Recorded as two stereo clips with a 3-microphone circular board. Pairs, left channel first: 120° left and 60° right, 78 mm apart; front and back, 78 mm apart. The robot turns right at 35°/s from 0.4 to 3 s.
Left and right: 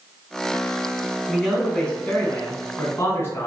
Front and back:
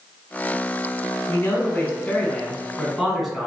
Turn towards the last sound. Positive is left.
turn(degrees=90)